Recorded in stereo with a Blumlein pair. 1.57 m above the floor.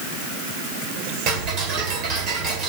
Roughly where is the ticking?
Ahead right.